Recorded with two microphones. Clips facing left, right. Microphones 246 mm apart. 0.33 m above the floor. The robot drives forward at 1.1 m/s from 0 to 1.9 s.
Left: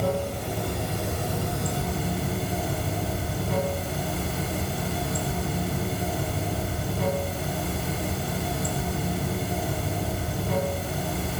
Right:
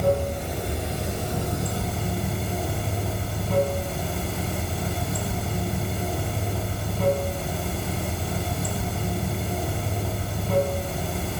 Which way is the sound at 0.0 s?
Centre (ahead or behind).